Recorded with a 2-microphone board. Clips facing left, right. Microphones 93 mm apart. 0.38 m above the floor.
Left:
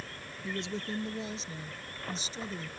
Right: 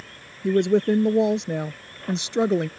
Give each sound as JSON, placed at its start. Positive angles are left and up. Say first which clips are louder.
{"t": 0.4, "sound": "a woman speaking", "louder": "right 18 dB", "side_deg": -65}